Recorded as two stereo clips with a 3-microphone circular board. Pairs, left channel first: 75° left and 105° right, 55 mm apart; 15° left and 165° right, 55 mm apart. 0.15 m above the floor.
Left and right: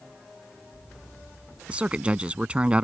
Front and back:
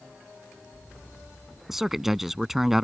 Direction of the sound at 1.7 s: 85° right.